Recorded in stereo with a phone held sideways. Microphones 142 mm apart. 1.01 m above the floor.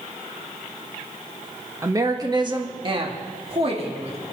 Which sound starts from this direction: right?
A woman speaking, at 1.8 s.